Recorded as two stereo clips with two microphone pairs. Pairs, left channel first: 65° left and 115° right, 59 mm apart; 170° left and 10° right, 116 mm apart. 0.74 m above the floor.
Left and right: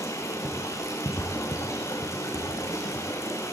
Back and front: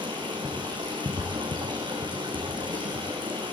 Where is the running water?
35° left, 5.5 m.